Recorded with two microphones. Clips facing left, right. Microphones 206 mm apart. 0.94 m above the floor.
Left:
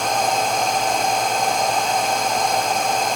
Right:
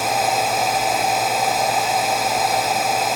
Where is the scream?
I don't hear a scream.